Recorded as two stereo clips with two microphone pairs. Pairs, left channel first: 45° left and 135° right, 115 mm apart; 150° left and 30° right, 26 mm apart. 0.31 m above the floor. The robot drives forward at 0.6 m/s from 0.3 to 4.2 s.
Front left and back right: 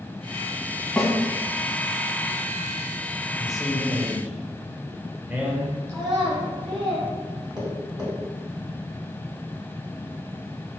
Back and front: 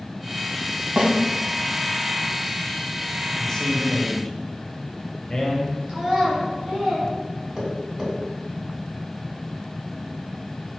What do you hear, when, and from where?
1.0 s a snare drum: 35° right, 1.5 m; by 1.1 s 40° right, 1.4 m
3.4 s a man speaking: 135° left, 1.1 m; by 5.8 s 160° left, 1.3 m
5.9 s a child speaking: 90° right, 3 m
7.6 s tapping: 100° right, 3 m